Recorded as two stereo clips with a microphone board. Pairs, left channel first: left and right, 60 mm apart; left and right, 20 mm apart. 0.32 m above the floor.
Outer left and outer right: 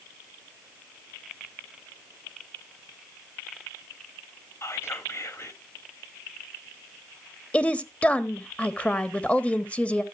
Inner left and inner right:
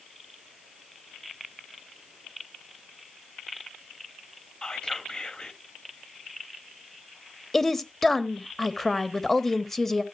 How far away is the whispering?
About 2 m.